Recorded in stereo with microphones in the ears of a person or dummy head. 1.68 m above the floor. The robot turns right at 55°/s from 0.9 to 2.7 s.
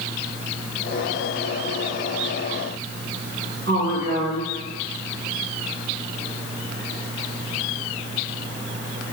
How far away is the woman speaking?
About 2.5 m.